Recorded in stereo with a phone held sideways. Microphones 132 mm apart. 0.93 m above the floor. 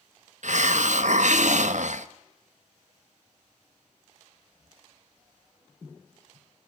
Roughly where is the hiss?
Right.